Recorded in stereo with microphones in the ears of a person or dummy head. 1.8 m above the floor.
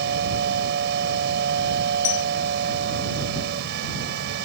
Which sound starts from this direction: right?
A machine running, at 0.0 s.